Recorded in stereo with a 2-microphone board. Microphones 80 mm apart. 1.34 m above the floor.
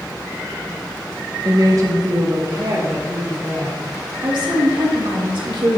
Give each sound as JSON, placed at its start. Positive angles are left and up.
{"t": 1.4, "sound": "a woman speaking", "side_deg": -40, "distance_m": 1.1}
{"t": 4.2, "sound": "a woman speaking", "side_deg": -90, "distance_m": 3.0}